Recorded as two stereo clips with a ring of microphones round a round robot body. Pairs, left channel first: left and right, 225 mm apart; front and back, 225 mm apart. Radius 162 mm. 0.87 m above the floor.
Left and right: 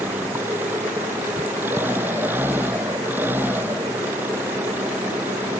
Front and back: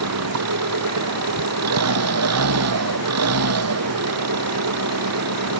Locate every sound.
0.0 s an engine running: 175° right